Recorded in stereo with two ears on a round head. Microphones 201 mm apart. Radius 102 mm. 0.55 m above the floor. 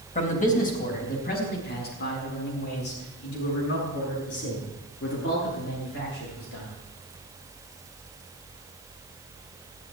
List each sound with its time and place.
0.1 s a man speaking: 35° left (ahead or behind), 4 m; by 6.7 s 60° left (ahead or behind), 11 m